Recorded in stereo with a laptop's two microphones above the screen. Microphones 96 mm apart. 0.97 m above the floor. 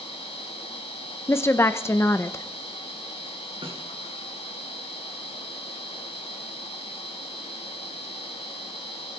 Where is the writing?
No writing in this recording.